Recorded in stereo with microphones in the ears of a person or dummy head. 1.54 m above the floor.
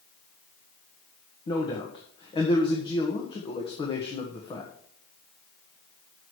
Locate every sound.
1.5 s a man speaking: 25° left (ahead or behind), 1.2 m